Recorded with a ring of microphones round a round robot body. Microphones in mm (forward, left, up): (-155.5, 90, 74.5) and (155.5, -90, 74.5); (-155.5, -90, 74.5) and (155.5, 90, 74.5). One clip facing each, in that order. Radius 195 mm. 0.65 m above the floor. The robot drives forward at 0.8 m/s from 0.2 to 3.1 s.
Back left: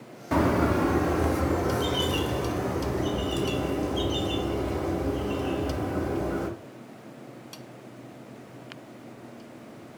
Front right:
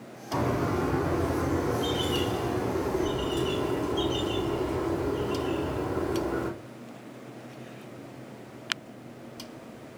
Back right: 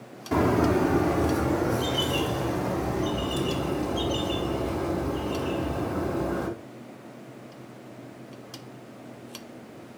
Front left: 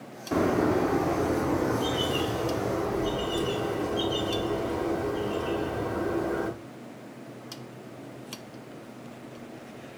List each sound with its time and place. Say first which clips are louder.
0.3 s a bird: back left 5 dB, back right 2 dB; 135° left, 1.0 m; by 6.5 s 165° left, 3 m